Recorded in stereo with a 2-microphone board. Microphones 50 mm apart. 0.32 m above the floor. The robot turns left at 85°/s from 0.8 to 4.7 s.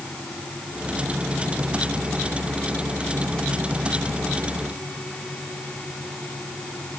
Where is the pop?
No pop in this recording.